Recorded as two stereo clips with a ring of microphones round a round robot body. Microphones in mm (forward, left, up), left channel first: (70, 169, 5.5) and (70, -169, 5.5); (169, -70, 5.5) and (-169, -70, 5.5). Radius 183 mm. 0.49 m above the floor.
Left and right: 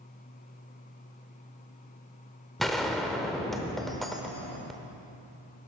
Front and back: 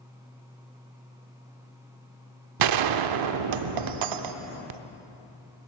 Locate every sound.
2.6 s a gunshot: straight behind, 0.6 m